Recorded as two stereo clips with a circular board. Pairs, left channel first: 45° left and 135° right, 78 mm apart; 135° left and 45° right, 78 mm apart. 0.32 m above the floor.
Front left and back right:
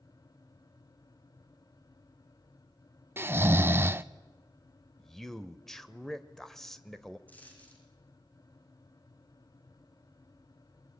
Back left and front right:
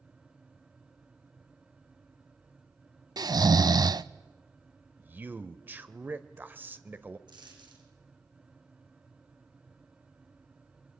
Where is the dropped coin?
25° right, 6 m.